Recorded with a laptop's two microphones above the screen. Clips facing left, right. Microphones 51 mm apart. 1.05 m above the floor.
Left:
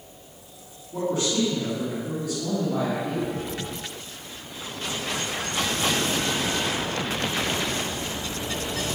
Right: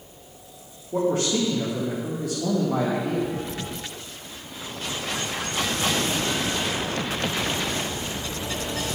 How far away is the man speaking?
About 1.7 m.